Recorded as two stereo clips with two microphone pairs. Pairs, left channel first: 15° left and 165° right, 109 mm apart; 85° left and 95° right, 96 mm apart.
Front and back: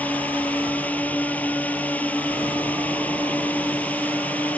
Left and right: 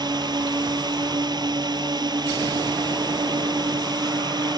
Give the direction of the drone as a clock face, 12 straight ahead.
2 o'clock.